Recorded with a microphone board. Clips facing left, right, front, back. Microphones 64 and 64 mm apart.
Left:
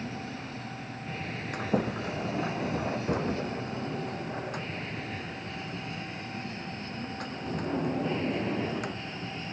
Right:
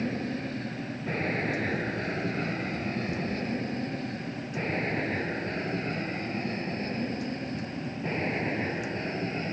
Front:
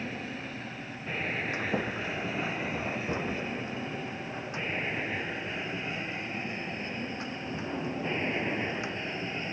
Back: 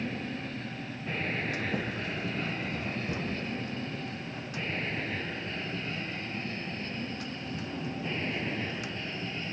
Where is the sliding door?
60° left.